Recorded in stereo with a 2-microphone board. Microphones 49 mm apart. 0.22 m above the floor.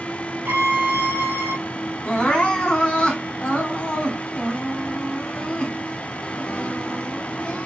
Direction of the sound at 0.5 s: 50° right (ahead or behind).